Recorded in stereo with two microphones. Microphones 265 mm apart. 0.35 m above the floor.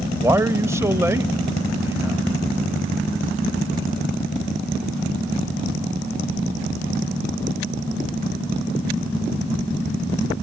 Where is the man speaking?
10° right (ahead or behind), 1.1 m.